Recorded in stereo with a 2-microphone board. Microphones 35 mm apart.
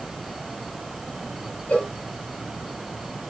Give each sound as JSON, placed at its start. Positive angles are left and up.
{"t": 1.7, "sound": "a cowbell", "side_deg": 45, "distance_m": 2.5}